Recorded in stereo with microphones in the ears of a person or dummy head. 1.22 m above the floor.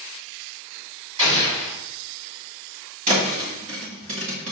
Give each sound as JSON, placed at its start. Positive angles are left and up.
{"t": 1.2, "sound": "an explosion", "side_deg": -30, "distance_m": 2.0}
{"t": 3.1, "sound": "a thud", "side_deg": -45, "distance_m": 1.6}